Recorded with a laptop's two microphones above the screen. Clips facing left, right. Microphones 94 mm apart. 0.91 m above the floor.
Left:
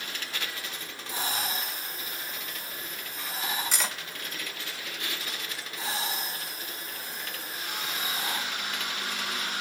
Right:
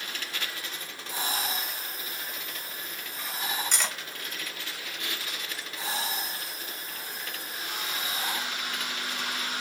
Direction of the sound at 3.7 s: 5° left (ahead or behind).